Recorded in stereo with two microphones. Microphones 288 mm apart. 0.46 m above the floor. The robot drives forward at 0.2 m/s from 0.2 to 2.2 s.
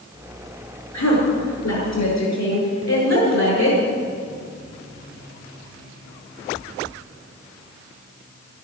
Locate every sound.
0.9 s a woman speaking: 70° left (ahead or behind), 7 m; by 3.8 s 65° left (ahead or behind), 7 m